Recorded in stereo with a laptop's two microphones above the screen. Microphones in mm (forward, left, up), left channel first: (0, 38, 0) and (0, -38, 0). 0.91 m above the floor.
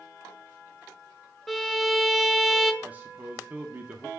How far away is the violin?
About 1.0 m.